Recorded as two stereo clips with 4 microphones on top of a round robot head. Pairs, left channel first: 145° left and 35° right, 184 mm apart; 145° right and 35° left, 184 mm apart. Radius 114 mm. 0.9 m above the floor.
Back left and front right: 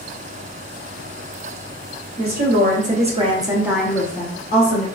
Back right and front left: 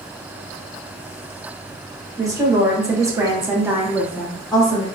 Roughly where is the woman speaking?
Ahead right.